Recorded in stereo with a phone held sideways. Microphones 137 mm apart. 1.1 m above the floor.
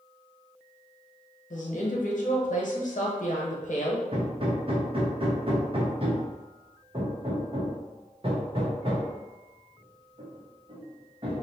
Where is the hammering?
45° right (ahead or behind), 0.8 m.